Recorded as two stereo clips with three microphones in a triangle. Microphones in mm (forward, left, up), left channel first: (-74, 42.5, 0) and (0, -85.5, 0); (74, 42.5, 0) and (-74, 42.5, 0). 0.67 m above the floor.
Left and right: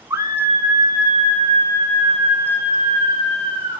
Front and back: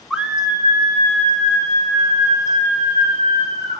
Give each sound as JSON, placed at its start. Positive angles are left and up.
{"t": 0.1, "sound": "a scream", "azimuth_deg": -100, "distance_m": 0.7}